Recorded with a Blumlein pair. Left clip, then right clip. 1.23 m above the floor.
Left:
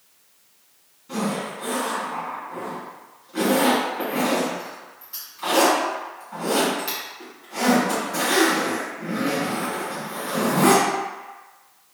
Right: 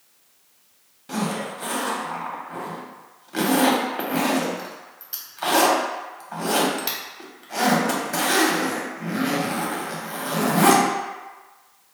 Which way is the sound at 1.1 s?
45° right.